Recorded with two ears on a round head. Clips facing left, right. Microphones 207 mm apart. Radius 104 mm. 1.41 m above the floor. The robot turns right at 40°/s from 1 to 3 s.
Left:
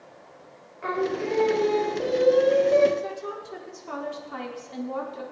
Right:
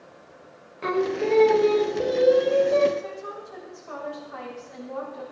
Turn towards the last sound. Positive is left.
turn(degrees=60)  # may be behind; listen again after turning